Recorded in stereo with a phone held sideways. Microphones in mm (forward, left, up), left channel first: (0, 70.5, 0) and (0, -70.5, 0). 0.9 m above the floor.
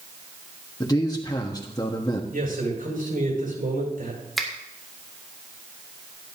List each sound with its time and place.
0.8 s a man speaking: 25° left (ahead or behind), 1.3 m
2.3 s a man speaking: 85° right, 7.5 m
4.4 s a finger snap: centre (ahead or behind), 2.0 m